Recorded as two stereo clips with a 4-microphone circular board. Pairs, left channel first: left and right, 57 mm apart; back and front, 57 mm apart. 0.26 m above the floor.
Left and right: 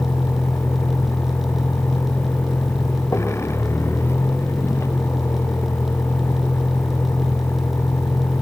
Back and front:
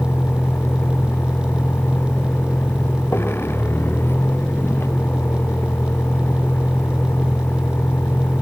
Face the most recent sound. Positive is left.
turn(degrees=130)